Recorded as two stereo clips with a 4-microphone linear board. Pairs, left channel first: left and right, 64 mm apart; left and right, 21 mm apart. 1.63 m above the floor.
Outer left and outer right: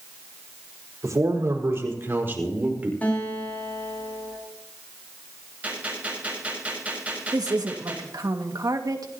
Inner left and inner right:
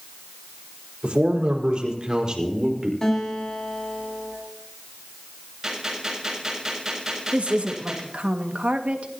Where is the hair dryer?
I don't hear a hair dryer.